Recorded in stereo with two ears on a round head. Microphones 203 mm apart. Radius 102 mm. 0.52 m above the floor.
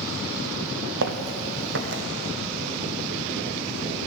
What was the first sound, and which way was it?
Footsteps, 60° right (ahead or behind).